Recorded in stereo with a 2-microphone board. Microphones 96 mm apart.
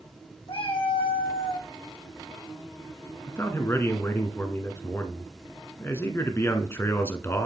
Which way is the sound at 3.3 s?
25° left (ahead or behind).